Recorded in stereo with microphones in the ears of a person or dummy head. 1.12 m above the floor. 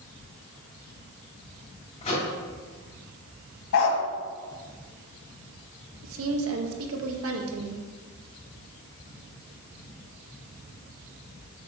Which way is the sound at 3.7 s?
60° left (ahead or behind).